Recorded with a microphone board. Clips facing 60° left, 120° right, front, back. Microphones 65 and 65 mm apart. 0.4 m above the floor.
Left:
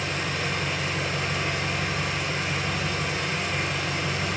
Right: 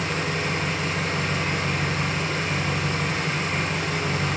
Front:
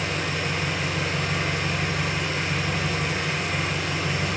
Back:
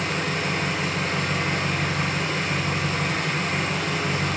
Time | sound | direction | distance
0.0 | an engine running | 150° right | 2.5 m